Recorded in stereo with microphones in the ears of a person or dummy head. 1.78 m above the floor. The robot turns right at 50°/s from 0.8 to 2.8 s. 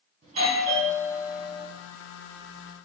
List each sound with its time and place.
0.2 s a doorbell: 30° right, 1.8 m; by 1.7 s 10° left, 1.8 m